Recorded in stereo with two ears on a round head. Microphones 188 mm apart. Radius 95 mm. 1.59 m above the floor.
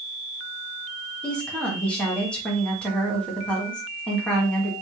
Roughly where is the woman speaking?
Centre.